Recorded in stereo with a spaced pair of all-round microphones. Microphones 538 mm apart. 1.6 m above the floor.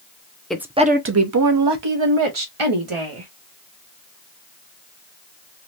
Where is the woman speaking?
Centre (ahead or behind), 0.6 m; by 3.3 s 75° right (ahead or behind), 1.4 m.